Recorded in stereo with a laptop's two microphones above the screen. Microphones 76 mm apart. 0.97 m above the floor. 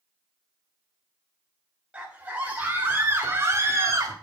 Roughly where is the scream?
Centre.